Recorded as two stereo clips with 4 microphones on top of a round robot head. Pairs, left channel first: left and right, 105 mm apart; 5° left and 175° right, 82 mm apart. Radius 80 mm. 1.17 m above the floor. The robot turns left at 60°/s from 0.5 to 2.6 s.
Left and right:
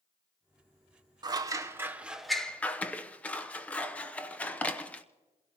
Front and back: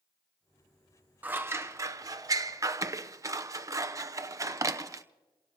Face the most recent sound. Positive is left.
turn(degrees=165)